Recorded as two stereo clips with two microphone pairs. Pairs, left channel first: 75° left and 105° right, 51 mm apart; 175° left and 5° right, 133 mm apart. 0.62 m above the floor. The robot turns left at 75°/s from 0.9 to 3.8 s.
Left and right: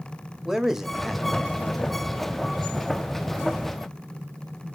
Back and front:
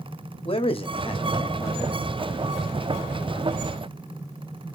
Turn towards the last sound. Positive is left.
turn(degrees=-40)